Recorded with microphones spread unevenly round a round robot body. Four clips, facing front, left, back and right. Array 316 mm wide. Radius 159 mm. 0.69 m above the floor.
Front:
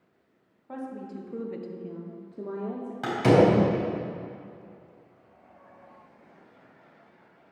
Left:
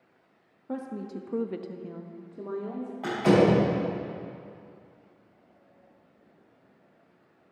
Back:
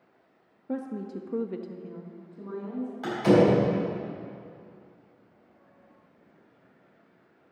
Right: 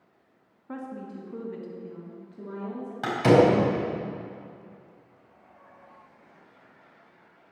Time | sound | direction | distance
0.7 | a woman speaking | 165° left | 1.3 m
3.0 | a door slam | 55° right | 4 m